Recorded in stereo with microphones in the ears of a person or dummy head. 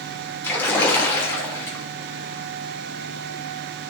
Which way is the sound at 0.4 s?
10° left (ahead or behind).